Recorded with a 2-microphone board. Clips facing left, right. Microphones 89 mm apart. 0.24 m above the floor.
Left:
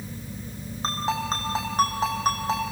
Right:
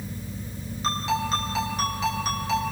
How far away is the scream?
I don't hear a scream.